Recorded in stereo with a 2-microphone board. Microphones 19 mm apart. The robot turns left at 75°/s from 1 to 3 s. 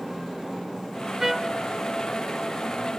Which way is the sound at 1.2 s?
20° right (ahead or behind).